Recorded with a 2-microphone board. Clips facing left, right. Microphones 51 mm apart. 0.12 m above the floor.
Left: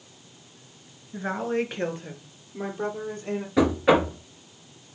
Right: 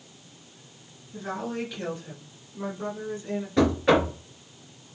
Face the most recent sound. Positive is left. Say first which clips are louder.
# left 1 dB
turn(degrees=10)  # may be behind; listen again after turning